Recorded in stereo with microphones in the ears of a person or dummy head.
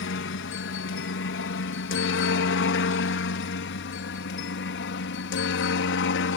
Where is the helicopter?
60° left (ahead or behind).